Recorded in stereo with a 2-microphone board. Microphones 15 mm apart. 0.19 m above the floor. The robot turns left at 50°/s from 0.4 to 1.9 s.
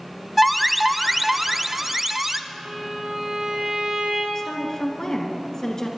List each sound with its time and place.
0.4 s an alarm: 5° right (ahead or behind), 0.7 m; by 2.4 s 25° right (ahead or behind), 0.7 m
2.5 s a violin: 55° right (ahead or behind), 6.5 m
4.3 s a woman speaking: 25° left (ahead or behind), 2.5 m